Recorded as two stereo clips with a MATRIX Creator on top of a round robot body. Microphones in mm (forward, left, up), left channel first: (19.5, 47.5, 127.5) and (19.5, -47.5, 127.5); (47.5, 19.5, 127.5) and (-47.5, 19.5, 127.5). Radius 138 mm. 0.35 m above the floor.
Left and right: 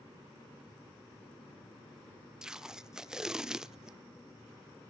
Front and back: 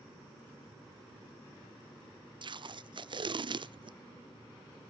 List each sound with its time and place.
2.4 s tape being pulled: 170° right, 0.6 m